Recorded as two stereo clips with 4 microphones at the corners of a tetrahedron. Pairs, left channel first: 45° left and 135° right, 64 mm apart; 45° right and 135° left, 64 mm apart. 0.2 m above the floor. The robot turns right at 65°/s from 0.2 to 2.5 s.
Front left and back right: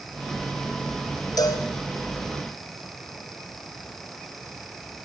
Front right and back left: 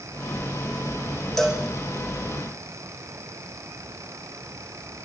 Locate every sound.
1.4 s a cowbell: 40° left, 5 m; by 1.6 s 60° left, 5 m